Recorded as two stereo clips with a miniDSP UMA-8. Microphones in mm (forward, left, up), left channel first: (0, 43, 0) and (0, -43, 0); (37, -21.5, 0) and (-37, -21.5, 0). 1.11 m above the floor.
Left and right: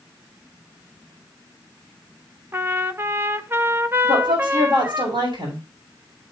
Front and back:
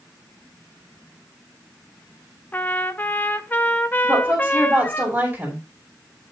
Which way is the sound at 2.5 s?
45° right.